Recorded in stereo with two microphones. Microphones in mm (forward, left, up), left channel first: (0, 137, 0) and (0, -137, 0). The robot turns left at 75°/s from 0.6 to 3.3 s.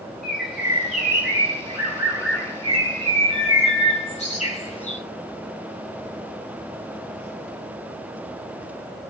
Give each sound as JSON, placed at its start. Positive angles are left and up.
{"t": 0.2, "sound": "a bird", "azimuth_deg": -5, "distance_m": 3.5}